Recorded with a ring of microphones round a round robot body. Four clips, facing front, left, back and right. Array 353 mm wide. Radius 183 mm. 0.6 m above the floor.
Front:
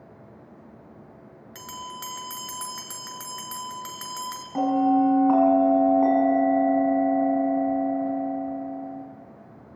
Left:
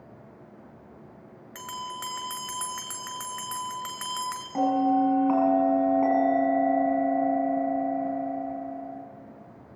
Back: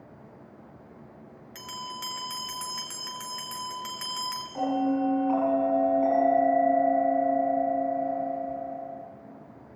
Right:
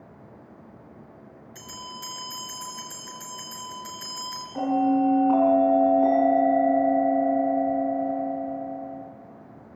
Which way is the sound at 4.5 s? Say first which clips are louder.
Right 1 dB, front 6 dB; 35° left.